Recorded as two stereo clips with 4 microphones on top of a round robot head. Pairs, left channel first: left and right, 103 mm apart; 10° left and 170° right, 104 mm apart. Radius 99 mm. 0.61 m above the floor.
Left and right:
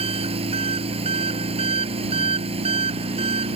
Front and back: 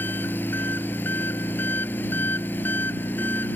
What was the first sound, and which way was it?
An engine running, 65° right.